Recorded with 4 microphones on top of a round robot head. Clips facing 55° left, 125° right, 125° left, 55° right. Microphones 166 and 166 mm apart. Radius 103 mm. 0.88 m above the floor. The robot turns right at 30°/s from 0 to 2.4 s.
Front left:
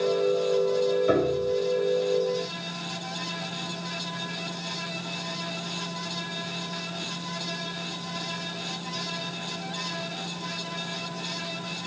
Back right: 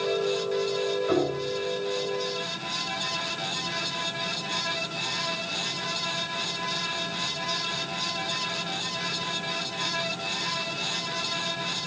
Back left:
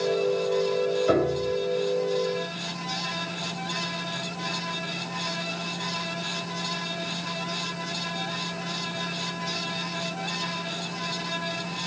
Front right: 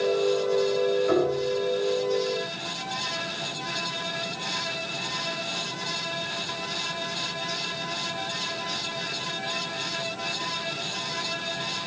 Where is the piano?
75° left, 7.5 m; by 1.5 s 90° left, 7.5 m.